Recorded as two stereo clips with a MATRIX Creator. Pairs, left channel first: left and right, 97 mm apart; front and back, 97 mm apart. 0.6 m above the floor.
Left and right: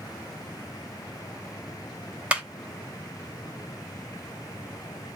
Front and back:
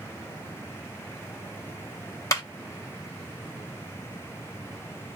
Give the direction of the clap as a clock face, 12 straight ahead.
1 o'clock.